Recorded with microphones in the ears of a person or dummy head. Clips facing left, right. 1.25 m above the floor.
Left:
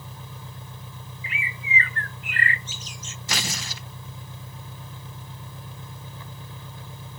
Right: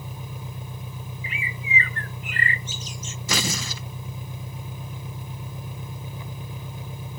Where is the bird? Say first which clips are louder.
Even; 85° right.